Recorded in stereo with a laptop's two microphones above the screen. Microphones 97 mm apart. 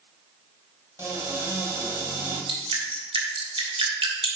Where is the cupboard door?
30° right (ahead or behind), 2.5 m.